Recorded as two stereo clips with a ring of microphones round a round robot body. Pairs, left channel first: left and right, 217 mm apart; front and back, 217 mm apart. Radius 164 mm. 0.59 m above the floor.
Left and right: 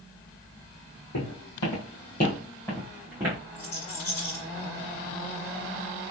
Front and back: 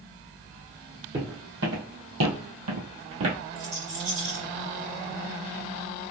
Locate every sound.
1.1 s footsteps: 115° left, 1.9 m; by 3.4 s 160° right, 1.6 m
3.5 s a rattle: 130° left, 1.9 m